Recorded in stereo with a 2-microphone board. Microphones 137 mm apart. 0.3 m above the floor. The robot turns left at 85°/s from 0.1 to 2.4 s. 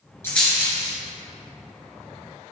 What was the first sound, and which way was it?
A rattle, 20° left (ahead or behind).